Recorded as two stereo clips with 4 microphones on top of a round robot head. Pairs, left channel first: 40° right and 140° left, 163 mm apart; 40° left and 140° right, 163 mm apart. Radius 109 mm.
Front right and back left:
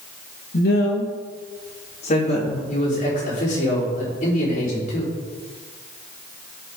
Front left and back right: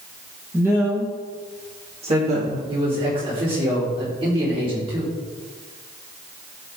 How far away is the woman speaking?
About 2.5 m.